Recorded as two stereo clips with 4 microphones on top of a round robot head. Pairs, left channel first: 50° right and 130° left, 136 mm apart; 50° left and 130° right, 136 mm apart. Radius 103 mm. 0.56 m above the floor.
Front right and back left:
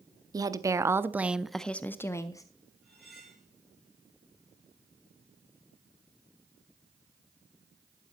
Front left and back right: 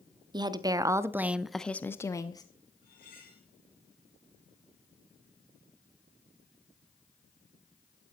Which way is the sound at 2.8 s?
40° left.